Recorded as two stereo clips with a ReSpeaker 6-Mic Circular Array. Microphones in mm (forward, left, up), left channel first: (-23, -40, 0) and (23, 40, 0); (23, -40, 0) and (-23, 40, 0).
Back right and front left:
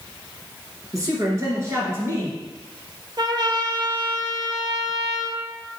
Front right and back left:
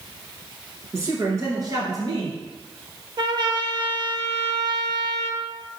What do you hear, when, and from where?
0.9 s a woman speaking: 85° left, 1.5 m; by 2.4 s 115° left, 1.8 m
3.2 s a trumpet: 95° left, 0.5 m